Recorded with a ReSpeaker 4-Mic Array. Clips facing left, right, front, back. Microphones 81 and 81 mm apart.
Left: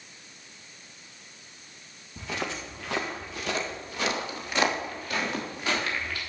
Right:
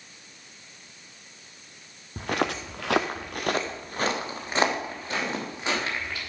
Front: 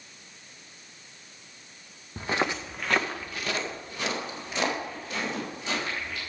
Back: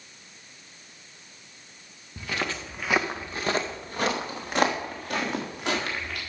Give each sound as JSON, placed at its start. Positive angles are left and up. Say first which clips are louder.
{"t": 2.2, "sound": "footsteps", "louder": "right 6 dB, front 3 dB", "azimuth_deg": -50, "distance_m": 1.5}